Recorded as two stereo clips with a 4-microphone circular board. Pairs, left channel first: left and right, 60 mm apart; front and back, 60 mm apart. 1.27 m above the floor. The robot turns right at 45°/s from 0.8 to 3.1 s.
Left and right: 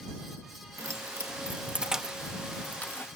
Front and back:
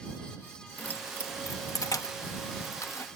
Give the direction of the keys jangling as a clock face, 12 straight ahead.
2 o'clock.